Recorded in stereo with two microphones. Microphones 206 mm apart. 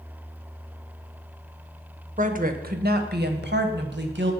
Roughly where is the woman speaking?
Right.